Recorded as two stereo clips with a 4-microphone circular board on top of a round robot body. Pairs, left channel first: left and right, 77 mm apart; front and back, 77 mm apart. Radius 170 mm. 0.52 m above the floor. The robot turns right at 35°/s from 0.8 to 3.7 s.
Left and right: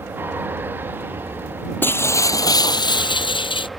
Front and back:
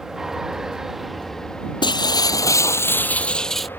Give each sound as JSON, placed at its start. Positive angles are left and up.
{"t": 0.0, "sound": "an aircraft", "azimuth_deg": -100}
{"t": 1.8, "sound": "breaking glass", "azimuth_deg": 25}